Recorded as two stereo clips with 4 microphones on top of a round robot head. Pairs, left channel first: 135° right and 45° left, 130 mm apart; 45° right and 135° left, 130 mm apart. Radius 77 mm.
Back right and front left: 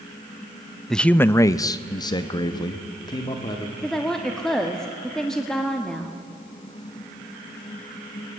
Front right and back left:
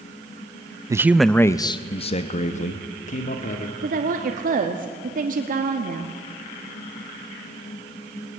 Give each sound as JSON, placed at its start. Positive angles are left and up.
{"t": 0.9, "sound": "a man speaking", "azimuth_deg": 145, "distance_m": 0.6}
{"t": 3.8, "sound": "a woman speaking", "azimuth_deg": 140, "distance_m": 1.5}